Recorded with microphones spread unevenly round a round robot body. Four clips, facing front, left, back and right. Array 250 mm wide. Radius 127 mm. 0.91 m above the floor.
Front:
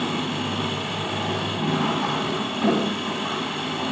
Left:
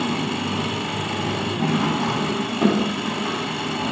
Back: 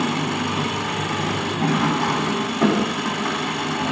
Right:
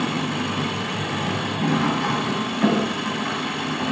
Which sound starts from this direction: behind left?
An engine running, at 0.0 s.